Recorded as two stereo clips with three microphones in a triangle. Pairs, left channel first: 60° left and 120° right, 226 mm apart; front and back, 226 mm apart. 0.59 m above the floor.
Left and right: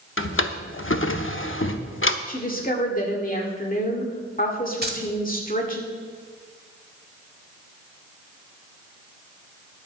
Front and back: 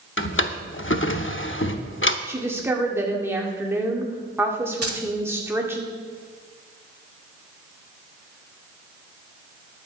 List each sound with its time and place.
0.2 s a drawer: 30° left, 0.8 m
2.3 s a woman speaking: 100° left, 1.9 m
4.8 s keys jangling: 165° right, 1.4 m